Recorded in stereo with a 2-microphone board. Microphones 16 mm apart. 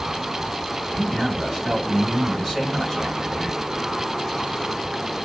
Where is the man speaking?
20° right (ahead or behind), 2.5 m.